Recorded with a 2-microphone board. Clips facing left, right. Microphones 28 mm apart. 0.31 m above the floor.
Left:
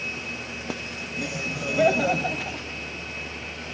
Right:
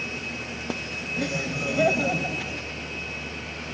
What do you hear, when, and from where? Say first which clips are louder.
1.2 s laughter: right 1 dB; 25° right (ahead or behind), 1.3 m; by 2.7 s 35° left (ahead or behind), 1.9 m